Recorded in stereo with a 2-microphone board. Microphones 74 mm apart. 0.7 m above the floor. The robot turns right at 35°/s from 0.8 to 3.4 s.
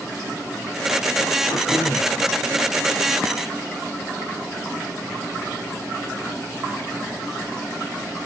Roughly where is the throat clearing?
Left.